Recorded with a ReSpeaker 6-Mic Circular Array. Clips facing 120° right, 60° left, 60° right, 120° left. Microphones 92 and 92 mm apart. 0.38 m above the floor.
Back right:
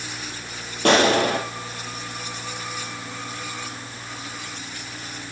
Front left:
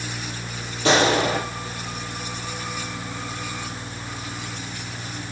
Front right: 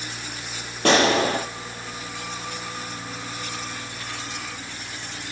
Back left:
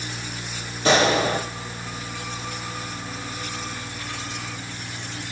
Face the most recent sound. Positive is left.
turn(degrees=-90)